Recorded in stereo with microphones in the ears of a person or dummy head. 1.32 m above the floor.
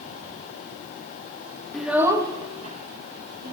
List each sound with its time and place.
1.7 s a child speaking: 5° left (ahead or behind), 1.0 m; by 3.5 s 55° right (ahead or behind), 2 m